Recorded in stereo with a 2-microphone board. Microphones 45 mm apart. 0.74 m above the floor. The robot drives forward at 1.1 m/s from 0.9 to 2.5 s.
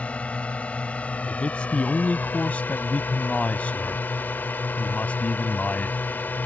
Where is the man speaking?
25° left (ahead or behind); by 6.1 s 30° left (ahead or behind).